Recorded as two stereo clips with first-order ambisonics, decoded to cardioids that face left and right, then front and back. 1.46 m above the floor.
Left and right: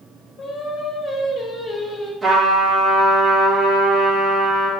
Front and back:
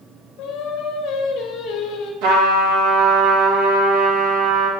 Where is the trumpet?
175° right, 2.5 m.